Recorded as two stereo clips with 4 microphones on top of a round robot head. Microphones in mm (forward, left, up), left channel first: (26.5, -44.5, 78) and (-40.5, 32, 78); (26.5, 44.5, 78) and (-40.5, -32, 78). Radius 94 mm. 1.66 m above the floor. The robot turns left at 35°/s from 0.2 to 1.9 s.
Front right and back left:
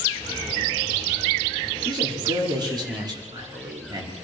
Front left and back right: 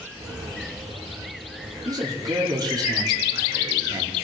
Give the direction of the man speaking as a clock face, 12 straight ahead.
6 o'clock.